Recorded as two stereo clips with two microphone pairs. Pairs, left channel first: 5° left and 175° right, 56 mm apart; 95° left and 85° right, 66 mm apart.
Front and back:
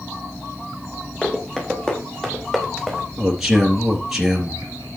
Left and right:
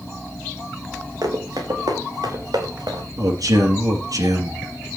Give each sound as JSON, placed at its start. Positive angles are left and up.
{"t": 1.2, "sound": "running footsteps", "azimuth_deg": -65, "distance_m": 5.5}
{"t": 3.2, "sound": "a man speaking", "azimuth_deg": -85, "distance_m": 3.5}